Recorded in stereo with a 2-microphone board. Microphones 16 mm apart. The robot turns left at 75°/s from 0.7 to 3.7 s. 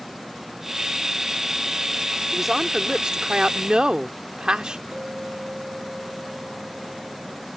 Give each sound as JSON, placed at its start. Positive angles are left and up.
{"t": 2.3, "sound": "a woman speaking", "azimuth_deg": -5}
{"t": 4.9, "sound": "a clink", "side_deg": -85}